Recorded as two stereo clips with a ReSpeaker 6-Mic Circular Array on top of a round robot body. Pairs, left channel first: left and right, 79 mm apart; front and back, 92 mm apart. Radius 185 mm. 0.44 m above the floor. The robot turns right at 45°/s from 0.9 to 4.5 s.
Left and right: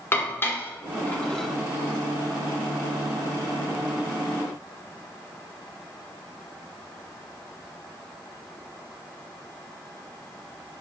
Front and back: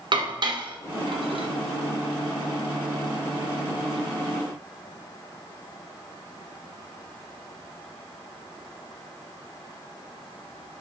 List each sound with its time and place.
0.1 s dishes clattering: 150° left, 1.4 m; by 1.5 s 175° left, 1.4 m